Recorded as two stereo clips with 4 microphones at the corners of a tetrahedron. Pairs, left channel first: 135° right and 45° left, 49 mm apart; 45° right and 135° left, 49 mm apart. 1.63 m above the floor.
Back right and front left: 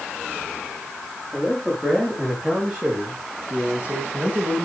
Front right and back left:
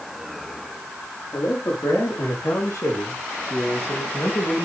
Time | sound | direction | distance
1.3 | a man speaking | 45° right | 4.5 m